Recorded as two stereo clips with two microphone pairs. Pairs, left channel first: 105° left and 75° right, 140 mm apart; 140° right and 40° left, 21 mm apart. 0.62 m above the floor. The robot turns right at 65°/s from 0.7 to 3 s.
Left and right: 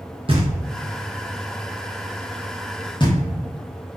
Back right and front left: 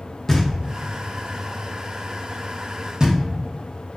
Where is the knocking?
85° right, 0.9 m; by 3.2 s 65° left, 0.9 m.